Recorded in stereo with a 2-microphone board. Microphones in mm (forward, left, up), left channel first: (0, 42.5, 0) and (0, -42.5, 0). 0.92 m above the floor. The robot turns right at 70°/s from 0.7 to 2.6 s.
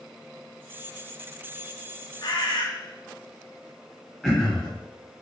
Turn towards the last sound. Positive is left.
turn(degrees=5)  # may be behind; listen again after turning